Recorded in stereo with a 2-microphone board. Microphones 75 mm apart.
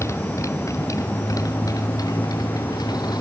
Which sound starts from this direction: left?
A motorcycle, at 0.0 s.